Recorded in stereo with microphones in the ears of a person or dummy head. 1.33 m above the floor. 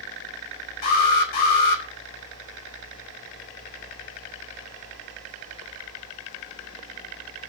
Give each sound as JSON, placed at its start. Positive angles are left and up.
{"t": 0.8, "sound": "an alarm", "side_deg": 50, "distance_m": 4.5}